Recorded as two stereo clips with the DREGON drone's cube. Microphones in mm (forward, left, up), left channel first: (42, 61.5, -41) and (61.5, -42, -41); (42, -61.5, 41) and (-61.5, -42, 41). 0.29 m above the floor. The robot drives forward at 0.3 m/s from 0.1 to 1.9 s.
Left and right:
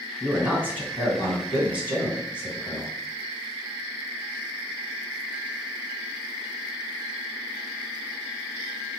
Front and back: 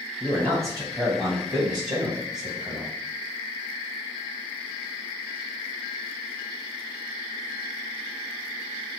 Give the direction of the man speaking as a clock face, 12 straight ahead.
5 o'clock.